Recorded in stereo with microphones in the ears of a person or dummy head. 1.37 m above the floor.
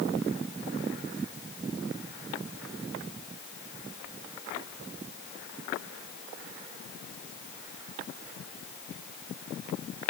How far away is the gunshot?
I don't hear a gunshot.